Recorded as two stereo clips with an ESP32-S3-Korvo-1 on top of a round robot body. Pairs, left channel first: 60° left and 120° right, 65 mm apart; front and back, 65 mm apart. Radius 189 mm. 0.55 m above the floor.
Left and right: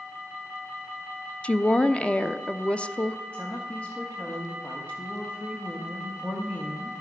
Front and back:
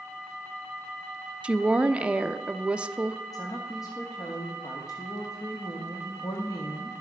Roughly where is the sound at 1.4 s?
Behind left.